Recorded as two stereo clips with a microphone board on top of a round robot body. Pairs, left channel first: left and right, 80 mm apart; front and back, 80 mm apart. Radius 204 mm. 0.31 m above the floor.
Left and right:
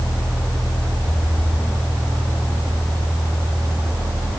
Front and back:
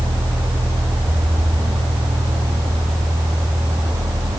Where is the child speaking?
I don't hear a child speaking.